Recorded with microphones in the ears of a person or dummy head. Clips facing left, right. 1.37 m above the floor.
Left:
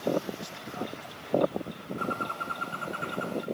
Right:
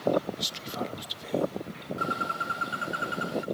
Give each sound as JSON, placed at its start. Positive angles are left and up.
{"t": 0.4, "sound": "whispering", "side_deg": -50, "distance_m": 1.3}
{"t": 2.0, "sound": "a bird", "side_deg": -10, "distance_m": 1.0}